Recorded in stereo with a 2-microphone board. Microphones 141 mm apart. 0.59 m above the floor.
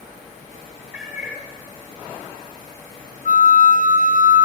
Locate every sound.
0.9 s a cat meowing: 10° right (ahead or behind), 3.5 m
3.2 s a flute: 70° right (ahead or behind), 0.7 m